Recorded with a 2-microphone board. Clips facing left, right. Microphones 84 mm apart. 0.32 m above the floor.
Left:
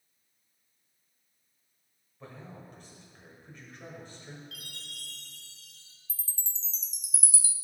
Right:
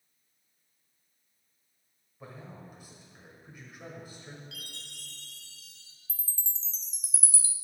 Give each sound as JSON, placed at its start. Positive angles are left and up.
{"t": 2.2, "sound": "a man speaking", "side_deg": -10, "distance_m": 1.0}
{"t": 4.5, "sound": "a chime", "side_deg": 45, "distance_m": 1.5}
{"t": 6.1, "sound": "a chime", "side_deg": -50, "distance_m": 0.5}